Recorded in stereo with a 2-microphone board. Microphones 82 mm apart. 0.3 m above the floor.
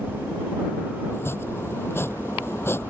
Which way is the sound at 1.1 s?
30° left (ahead or behind).